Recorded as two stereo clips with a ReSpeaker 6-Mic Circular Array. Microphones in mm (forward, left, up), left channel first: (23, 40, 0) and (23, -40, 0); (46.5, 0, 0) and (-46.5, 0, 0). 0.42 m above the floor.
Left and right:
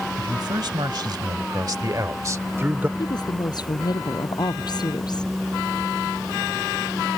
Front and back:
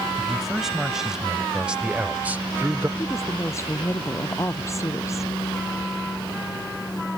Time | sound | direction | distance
0.2 | a man speaking | 90° right | ?
3.0 | a woman speaking | 60° left | ?